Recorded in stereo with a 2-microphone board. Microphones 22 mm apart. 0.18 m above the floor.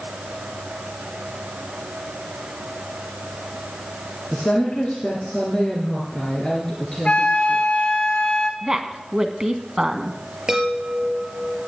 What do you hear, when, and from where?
4.3 s a woman speaking: 55° left (ahead or behind), 3 m; by 7.9 s 15° left (ahead or behind), 2.5 m
7.0 s a flute: 65° left (ahead or behind), 1.6 m
8.6 s a woman speaking: 25° right (ahead or behind), 1.5 m
10.5 s a chime: 35° right (ahead or behind), 4.5 m